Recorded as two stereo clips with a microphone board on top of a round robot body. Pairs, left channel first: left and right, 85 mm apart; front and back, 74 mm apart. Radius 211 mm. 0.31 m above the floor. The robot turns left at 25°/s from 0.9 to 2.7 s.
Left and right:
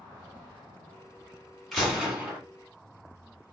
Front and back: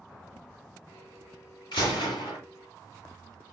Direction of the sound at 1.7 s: Straight ahead.